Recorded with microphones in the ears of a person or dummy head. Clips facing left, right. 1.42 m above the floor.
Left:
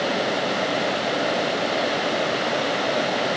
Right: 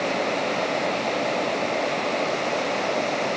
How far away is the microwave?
I don't hear a microwave.